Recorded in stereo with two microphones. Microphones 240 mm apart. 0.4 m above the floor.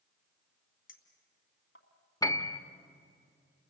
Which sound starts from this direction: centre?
A piano, at 2.2 s.